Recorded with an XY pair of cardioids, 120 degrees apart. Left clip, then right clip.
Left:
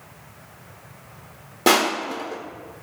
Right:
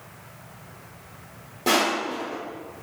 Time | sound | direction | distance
1.7 | crushing | 55° left | 0.7 m